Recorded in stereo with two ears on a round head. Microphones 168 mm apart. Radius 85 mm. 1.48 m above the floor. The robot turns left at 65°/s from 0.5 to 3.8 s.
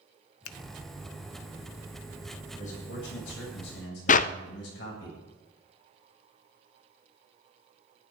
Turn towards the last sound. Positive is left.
turn(degrees=45)  # may be behind; listen again after turning